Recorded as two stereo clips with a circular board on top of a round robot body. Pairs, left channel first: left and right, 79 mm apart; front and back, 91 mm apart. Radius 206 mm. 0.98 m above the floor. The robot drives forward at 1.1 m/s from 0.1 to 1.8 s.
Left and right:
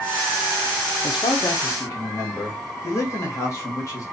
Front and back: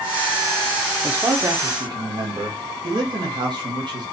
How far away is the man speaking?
About 0.7 m.